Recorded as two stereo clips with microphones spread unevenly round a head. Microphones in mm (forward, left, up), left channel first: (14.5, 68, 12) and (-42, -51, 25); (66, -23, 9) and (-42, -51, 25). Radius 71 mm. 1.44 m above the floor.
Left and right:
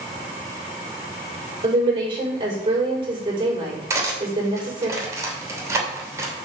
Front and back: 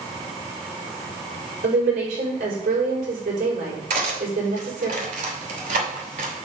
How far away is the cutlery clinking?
About 2.5 m.